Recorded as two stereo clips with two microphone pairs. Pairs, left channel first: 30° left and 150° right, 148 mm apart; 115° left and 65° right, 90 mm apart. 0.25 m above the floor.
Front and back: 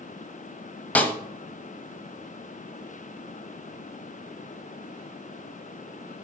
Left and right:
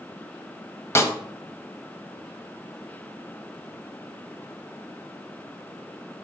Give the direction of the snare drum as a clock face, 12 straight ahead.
9 o'clock.